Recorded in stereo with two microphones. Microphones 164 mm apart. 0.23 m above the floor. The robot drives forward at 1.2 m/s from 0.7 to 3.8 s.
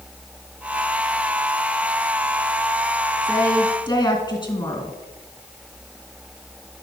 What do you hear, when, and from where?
3.2 s a woman speaking: 20° left (ahead or behind), 3 m; by 5.0 s 30° left (ahead or behind), 2.5 m